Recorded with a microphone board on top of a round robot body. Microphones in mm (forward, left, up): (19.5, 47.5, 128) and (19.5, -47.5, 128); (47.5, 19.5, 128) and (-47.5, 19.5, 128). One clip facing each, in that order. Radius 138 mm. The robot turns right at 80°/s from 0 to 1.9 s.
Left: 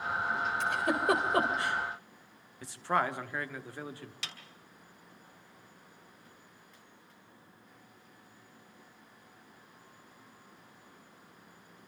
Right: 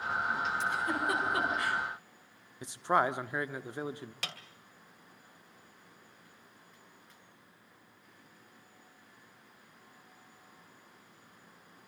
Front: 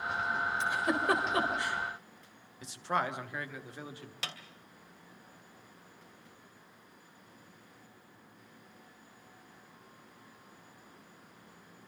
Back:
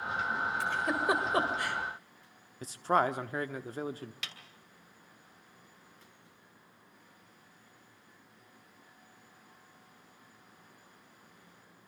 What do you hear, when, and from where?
0.6 s a giggle: 65° left, 3.5 m; by 1.8 s 160° left, 3.5 m
2.6 s a man speaking: 150° right, 1.3 m
4.2 s a snare drum: 55° right, 2.5 m